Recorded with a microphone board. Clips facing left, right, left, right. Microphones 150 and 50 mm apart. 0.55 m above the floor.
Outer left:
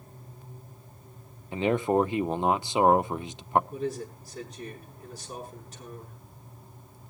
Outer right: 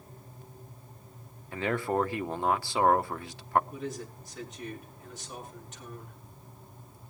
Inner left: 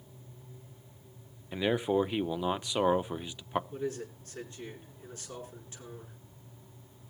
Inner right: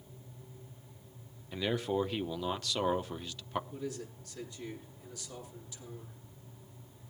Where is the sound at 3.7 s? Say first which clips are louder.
Outer left 5 dB, inner left 4 dB; 35° left (ahead or behind), 7.5 m.